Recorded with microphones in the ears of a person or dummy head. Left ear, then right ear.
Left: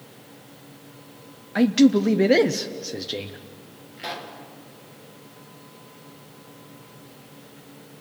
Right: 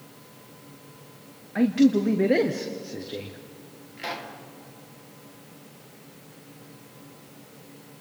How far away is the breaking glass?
I don't hear breaking glass.